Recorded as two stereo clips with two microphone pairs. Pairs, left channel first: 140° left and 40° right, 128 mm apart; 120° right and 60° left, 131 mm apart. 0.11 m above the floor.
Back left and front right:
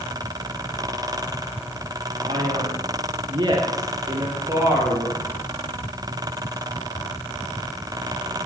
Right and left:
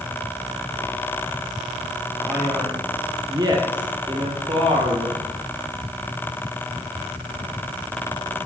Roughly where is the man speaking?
Ahead.